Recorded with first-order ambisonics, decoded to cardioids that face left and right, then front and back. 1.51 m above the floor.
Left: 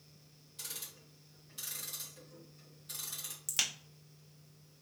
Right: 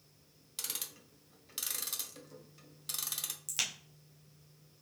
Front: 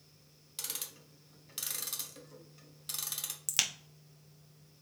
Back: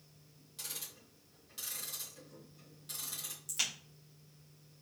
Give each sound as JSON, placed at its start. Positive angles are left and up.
{"t": 0.6, "sound": "ticking", "azimuth_deg": -55, "distance_m": 0.8}
{"t": 3.5, "sound": "a crack", "azimuth_deg": 10, "distance_m": 0.8}